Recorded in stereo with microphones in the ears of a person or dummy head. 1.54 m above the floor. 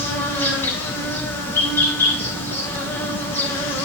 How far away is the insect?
About 1.9 m.